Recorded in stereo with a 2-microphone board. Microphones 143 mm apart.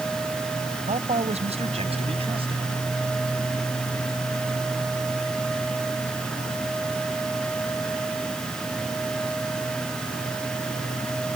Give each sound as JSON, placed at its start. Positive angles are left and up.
{"t": 0.9, "sound": "a man speaking", "side_deg": -55}